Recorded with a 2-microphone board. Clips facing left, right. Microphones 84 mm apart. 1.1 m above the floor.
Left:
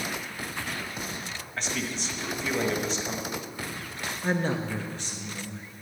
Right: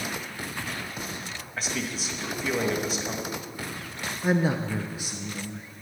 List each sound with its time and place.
1.6 s a man speaking: 10° right (ahead or behind), 1.7 m
4.2 s a man speaking: 10° right (ahead or behind), 0.6 m